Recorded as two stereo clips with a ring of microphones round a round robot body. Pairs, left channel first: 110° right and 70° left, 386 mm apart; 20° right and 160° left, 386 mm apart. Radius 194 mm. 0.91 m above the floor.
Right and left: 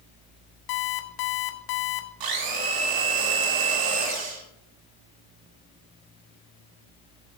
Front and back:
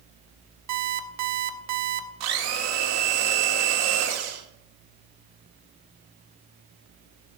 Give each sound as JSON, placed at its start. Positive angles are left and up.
{"t": 0.7, "sound": "an alarm clock", "azimuth_deg": -150, "distance_m": 1.0}
{"t": 2.2, "sound": "a blender", "azimuth_deg": 105, "distance_m": 1.7}